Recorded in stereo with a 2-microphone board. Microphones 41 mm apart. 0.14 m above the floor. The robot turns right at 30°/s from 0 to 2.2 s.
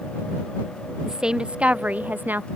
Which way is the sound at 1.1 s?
165° right.